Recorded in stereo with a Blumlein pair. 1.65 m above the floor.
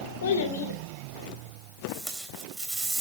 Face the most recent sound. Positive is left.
turn(degrees=-10)